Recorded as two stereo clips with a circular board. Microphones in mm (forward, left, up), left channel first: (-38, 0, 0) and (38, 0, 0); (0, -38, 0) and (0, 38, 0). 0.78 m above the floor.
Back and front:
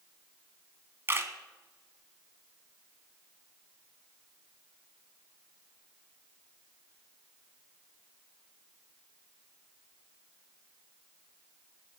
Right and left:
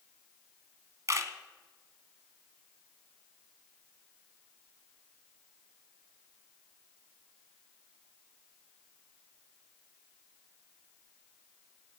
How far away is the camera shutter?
About 1.1 m.